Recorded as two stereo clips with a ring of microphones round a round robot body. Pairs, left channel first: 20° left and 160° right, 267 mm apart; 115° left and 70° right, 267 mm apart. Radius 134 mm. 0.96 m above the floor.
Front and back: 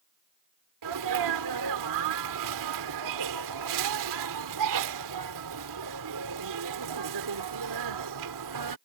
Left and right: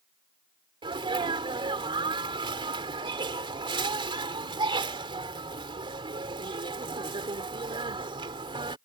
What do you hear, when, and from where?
0.8 s a sneeze: 140° right